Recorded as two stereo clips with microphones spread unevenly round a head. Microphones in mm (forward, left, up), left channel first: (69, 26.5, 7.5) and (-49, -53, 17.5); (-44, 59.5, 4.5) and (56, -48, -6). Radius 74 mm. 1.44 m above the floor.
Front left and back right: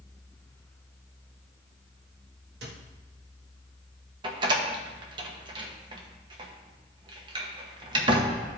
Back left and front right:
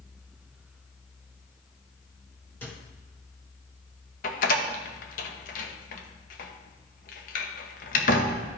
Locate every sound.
2.6 s a microwave: 150° right, 1.3 m
4.2 s a door slam: 155° left, 1.0 m